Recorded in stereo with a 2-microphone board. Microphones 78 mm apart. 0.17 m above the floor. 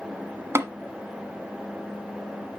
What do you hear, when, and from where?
0.6 s tapping: 35° right (ahead or behind), 1.3 m